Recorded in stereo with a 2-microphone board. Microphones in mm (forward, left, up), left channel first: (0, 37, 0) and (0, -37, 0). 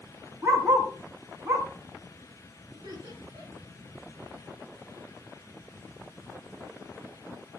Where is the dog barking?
35° right (ahead or behind), 4.5 m.